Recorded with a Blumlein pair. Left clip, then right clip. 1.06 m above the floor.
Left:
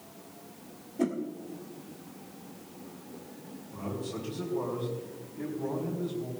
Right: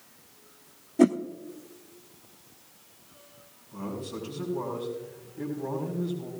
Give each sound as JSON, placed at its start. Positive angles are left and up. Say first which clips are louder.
{"t": 1.0, "sound": "a whoosh", "louder": "right 9 dB", "azimuth_deg": -25, "distance_m": 0.7}
{"t": 3.7, "sound": "a man speaking", "louder": "even", "azimuth_deg": 0, "distance_m": 3.5}